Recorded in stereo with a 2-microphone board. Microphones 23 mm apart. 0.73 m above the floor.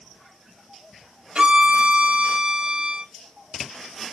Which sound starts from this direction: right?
A violin, at 1.4 s.